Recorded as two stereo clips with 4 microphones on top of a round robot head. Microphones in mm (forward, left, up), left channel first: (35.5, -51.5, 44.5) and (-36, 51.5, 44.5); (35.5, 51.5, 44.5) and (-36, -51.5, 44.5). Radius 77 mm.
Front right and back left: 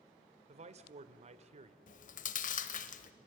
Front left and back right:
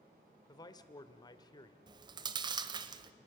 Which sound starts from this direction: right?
Chewing, at 1.9 s.